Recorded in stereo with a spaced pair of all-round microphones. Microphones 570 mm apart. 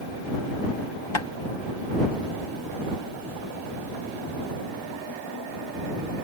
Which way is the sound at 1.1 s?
60° left (ahead or behind).